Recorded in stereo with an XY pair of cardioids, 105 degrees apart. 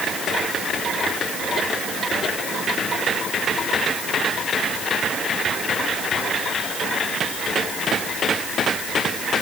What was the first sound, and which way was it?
Only background noise.